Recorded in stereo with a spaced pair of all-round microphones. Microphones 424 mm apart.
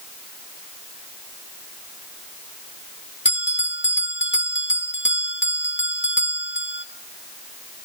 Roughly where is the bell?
Left.